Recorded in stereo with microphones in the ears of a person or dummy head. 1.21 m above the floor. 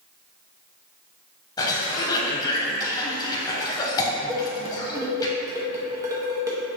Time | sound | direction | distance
1.6 | a cough | 20° left (ahead or behind) | 0.6 m
4.3 | dishes clattering | 15° right (ahead or behind) | 0.6 m